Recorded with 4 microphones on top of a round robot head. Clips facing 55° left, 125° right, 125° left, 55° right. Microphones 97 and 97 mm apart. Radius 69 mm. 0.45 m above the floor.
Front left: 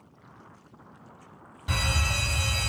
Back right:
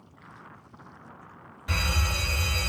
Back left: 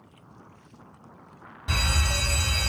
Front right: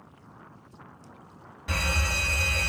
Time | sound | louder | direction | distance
1.7 | a fire alarm | front left 1 dB, back left 1 dB | 95° left | 1.7 m